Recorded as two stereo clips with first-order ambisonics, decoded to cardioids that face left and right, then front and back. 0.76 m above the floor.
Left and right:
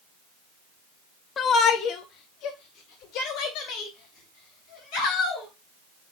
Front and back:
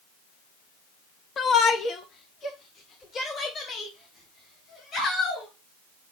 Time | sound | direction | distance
1.4 | a shout | 40° left | 0.6 m